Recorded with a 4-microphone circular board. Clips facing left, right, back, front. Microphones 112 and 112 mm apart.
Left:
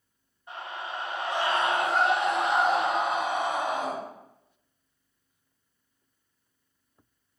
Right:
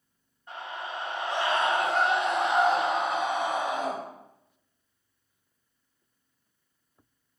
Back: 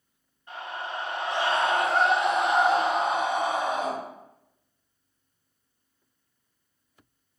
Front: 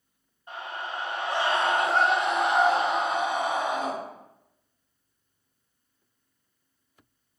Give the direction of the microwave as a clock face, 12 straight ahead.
No microwave in this recording.